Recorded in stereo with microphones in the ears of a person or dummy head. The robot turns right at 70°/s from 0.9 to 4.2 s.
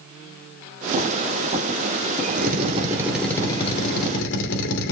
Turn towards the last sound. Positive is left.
turn(degrees=75)